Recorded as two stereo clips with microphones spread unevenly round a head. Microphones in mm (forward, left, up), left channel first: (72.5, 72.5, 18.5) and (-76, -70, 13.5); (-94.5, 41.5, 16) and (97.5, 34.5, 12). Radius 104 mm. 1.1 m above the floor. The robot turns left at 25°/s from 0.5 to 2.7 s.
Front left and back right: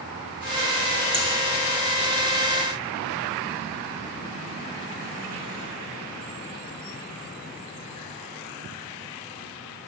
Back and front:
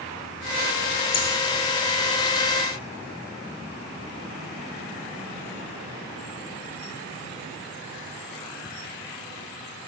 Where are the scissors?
140° left, 4 m; by 1.3 s 135° left, 4 m.